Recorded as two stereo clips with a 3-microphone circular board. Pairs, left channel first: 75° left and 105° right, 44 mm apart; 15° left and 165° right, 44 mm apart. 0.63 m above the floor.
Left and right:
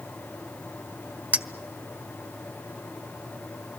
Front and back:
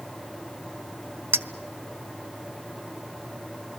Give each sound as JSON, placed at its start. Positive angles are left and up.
{"t": 1.3, "sound": "a clink", "azimuth_deg": -155, "distance_m": 1.2}